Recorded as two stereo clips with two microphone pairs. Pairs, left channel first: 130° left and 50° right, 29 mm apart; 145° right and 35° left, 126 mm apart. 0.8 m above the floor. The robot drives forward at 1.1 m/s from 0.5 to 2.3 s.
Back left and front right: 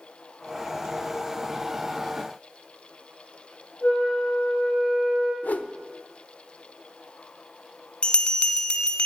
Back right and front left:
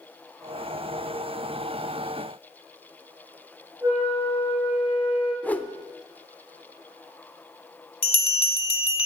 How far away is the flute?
About 4.5 m.